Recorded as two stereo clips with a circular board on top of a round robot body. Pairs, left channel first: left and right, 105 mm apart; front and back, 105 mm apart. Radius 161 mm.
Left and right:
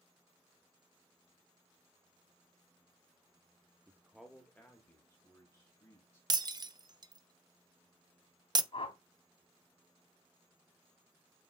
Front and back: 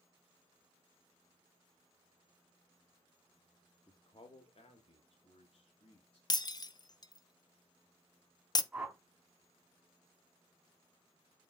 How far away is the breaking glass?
About 0.8 m.